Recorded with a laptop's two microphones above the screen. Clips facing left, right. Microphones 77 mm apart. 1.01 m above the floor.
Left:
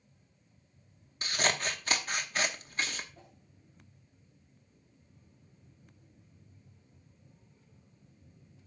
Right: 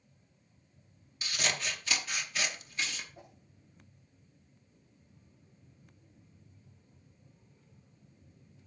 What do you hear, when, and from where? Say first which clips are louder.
1.2 s scissors: left 4 dB; 40° left (ahead or behind), 0.8 m
3.1 s a whoosh: right 3 dB; 15° right (ahead or behind), 2.5 m